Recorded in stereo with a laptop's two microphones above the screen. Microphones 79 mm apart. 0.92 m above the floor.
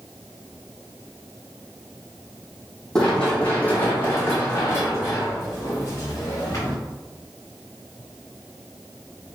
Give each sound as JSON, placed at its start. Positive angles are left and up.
{"t": 3.0, "sound": "running footsteps", "side_deg": 10, "distance_m": 1.4}